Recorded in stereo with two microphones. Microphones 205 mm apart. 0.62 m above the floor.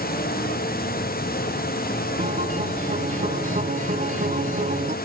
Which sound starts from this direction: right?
A guitar, at 2.2 s.